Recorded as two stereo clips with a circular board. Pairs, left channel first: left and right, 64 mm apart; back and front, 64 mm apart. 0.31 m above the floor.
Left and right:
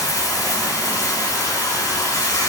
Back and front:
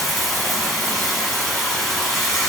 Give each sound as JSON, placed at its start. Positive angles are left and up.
{"t": 0.0, "sound": "running water", "azimuth_deg": 90, "distance_m": 1.1}